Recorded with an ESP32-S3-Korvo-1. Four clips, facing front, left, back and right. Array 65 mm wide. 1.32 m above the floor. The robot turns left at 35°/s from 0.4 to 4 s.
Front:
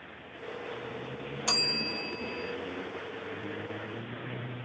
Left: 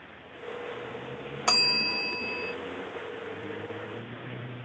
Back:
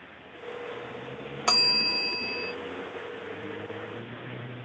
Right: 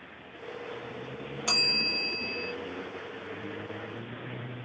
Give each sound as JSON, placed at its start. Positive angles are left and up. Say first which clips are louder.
{"t": 1.5, "sound": "a bell", "louder": "left 4 dB, back 6 dB", "azimuth_deg": 150, "distance_m": 1.0}